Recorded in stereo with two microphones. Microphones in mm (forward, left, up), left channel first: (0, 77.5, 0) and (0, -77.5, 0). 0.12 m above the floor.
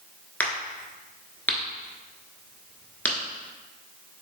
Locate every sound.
0.4 s a crack: 10° left (ahead or behind), 0.9 m